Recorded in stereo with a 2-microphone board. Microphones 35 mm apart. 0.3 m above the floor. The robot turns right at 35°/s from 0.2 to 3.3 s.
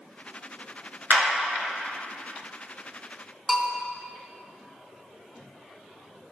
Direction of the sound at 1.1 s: 60° right (ahead or behind).